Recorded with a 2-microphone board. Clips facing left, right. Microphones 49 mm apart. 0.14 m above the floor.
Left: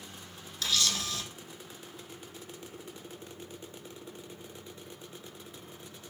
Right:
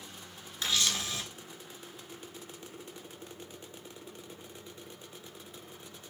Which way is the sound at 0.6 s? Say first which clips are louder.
Even; 25° right (ahead or behind).